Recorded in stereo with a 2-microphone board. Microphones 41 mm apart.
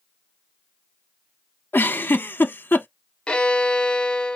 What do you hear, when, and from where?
1.7 s a giggle: 65° left (ahead or behind), 0.6 m
3.3 s a violin: 25° left (ahead or behind), 0.7 m